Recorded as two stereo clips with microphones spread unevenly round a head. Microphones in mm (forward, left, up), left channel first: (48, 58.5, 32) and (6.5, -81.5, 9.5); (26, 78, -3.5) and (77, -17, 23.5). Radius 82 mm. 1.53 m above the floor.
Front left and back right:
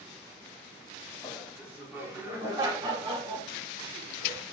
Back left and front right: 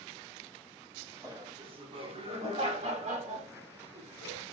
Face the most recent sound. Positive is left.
turn(degrees=-65)